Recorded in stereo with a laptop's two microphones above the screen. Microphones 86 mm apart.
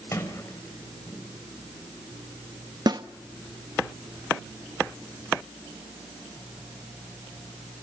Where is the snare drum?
50° right (ahead or behind), 0.8 m.